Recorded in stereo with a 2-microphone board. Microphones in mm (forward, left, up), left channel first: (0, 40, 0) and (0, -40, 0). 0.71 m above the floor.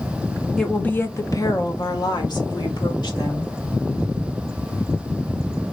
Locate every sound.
0.6 s a woman speaking: 5° left (ahead or behind), 0.6 m; by 3.5 s 75° left (ahead or behind), 1.7 m